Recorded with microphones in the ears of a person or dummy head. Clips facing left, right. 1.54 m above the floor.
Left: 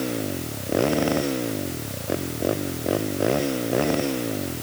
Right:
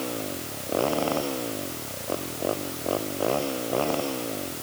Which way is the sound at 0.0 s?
25° left (ahead or behind).